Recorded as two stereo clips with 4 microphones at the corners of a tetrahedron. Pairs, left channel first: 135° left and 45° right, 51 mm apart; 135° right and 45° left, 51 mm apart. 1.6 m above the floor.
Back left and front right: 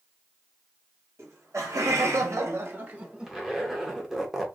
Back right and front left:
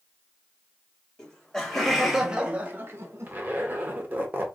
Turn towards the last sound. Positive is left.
turn(degrees=35)